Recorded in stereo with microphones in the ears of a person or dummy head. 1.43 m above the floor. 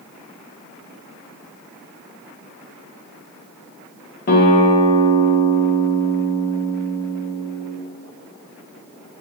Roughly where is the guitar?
Left.